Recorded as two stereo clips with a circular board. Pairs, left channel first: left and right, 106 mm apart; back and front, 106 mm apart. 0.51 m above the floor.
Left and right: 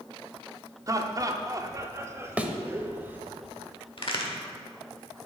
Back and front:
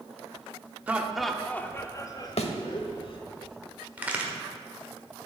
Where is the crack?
75° left, 1.3 m.